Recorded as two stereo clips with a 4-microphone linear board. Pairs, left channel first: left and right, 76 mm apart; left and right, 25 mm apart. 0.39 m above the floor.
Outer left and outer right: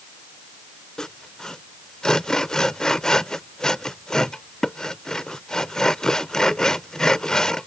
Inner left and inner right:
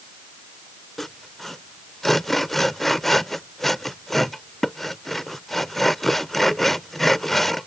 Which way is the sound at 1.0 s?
10° left (ahead or behind).